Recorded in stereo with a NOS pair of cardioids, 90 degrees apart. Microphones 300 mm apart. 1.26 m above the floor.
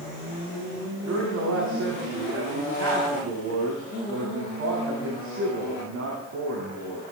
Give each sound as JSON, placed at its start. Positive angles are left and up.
{"t": 1.0, "sound": "a man speaking", "azimuth_deg": -65, "distance_m": 8.5}